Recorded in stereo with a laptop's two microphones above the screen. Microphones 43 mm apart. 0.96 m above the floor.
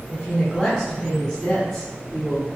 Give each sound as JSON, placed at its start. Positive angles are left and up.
{"t": 0.1, "sound": "a woman speaking", "side_deg": 40, "distance_m": 3.0}